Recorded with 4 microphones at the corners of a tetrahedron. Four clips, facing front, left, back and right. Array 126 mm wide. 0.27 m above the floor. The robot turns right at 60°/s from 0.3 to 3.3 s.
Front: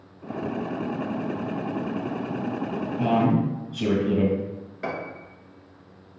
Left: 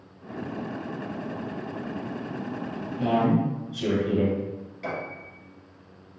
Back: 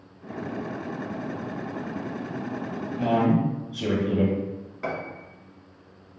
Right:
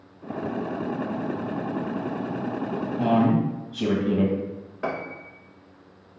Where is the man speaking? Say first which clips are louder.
Right 2 dB, even; 70° right, 1.5 m; by 4.4 s 55° right, 1.5 m.